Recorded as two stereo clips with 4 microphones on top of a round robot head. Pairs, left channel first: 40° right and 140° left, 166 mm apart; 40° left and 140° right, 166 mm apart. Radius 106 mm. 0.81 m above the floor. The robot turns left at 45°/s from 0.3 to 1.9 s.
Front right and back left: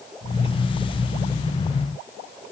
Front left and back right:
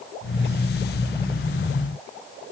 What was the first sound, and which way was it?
Only background noise.